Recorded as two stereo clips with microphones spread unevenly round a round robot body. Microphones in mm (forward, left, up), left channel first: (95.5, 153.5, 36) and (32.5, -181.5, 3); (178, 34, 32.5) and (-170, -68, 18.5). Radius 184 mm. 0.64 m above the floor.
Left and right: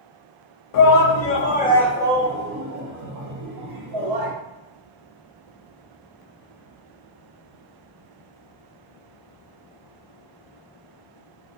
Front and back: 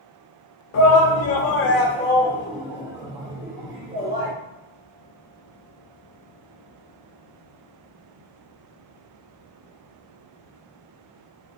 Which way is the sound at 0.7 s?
60° left.